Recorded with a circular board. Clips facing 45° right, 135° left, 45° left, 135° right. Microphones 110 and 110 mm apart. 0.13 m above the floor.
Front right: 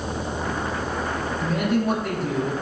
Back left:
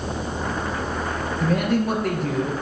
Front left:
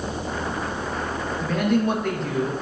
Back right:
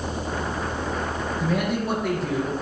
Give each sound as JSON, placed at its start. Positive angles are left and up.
{"t": 1.4, "sound": "a man speaking", "azimuth_deg": 140, "distance_m": 3.0}